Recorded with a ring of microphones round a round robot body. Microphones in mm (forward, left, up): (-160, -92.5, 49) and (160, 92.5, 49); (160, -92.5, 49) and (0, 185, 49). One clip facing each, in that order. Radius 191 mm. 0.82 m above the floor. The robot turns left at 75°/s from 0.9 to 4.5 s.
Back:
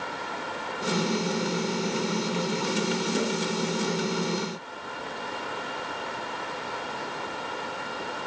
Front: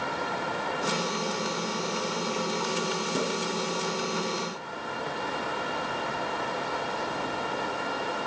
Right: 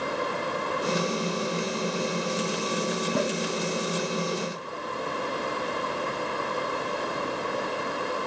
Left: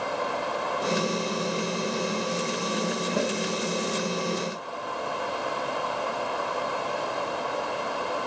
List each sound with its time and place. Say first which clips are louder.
3.1 s a snare drum: back 1 dB, even; 45° right, 9.5 m; by 3.3 s 60° right, 9.5 m